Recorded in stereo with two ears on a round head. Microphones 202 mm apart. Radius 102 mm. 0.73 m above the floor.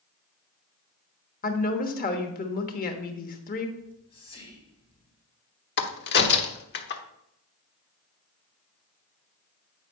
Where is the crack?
50° left (ahead or behind), 1.1 m.